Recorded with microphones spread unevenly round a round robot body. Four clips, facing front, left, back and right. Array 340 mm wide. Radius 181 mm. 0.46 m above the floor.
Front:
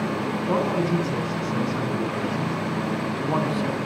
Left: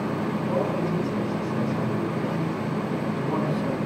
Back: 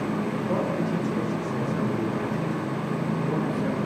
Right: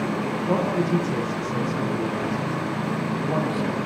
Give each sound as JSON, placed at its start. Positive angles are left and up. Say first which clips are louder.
{"t": 0.5, "sound": "a man speaking", "louder": "right 4 dB, front 5 dB", "azimuth_deg": -35, "distance_m": 6.5}